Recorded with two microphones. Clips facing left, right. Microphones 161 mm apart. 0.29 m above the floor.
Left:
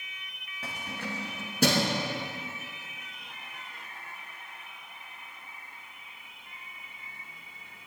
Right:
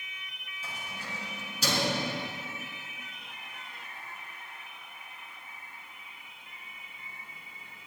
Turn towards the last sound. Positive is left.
turn(degrees=55)  # may be behind; listen again after turning